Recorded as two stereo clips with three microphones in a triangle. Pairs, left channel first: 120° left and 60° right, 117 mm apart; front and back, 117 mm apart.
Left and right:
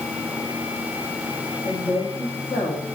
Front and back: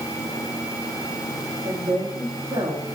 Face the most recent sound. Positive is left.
turn(degrees=140)